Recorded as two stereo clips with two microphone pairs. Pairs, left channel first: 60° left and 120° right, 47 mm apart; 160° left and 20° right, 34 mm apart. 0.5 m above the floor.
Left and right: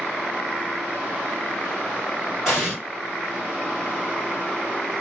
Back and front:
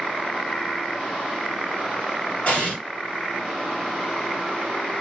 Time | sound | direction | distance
2.5 | an explosion | 165° left | 1.8 m